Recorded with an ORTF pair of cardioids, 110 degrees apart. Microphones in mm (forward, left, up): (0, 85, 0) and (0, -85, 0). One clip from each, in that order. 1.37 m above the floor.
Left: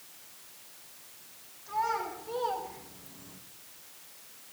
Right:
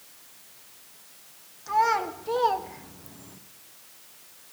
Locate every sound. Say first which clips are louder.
1.7 s a child speaking: right 8 dB; 60° right, 2 m; by 3.4 s 15° right, 1.1 m